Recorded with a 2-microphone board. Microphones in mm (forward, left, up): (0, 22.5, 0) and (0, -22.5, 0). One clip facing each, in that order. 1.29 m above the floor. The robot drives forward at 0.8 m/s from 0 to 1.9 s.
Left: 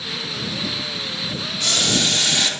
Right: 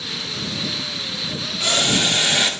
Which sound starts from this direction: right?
Boiling, at 1.6 s.